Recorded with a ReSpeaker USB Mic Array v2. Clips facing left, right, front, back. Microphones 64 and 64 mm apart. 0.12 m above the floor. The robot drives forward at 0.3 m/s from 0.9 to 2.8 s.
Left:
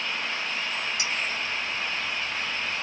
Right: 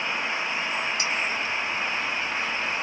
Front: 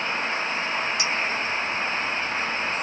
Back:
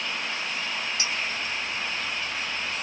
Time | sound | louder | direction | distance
1.0 | a clink | right 3 dB, front 4 dB | 130° right | 2.5 m